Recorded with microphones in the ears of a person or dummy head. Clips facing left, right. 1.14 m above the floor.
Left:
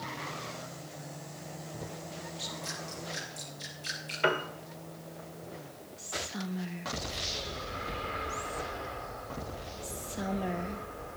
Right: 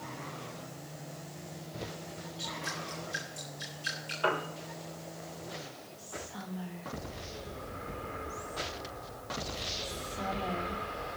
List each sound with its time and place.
2.4 s dripping: 10° right (ahead or behind), 5 m
4.2 s a piano: 25° left (ahead or behind), 1.6 m
6.0 s whispering: 30° left (ahead or behind), 0.8 m